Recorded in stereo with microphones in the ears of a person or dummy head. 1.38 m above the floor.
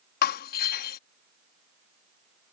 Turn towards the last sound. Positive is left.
turn(degrees=55)  # may be behind; listen again after turning